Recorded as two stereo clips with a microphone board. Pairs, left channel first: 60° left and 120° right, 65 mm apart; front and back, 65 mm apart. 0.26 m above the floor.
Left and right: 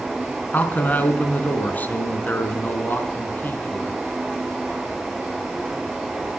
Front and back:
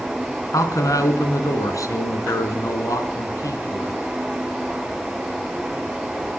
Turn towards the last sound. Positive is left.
turn(degrees=5)